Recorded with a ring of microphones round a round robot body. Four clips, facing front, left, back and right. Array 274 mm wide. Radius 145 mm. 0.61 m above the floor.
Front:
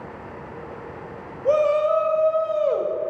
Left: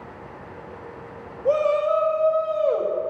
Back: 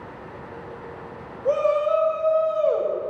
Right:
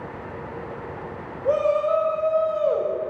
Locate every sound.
1.4 s a shout: 25° left, 1.0 m